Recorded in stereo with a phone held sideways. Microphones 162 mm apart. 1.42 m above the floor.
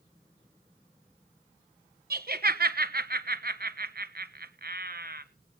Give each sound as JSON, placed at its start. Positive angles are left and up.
{"t": 2.1, "sound": "laughter", "side_deg": -70, "distance_m": 1.3}